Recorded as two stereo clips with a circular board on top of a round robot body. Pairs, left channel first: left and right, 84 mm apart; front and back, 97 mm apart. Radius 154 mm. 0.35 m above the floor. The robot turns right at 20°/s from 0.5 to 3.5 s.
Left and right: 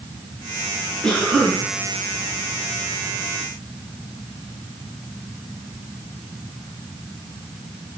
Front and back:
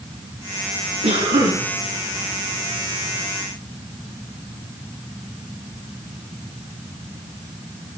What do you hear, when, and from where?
1.0 s a cough: 170° left, 5 m; by 1.6 s 175° right, 5 m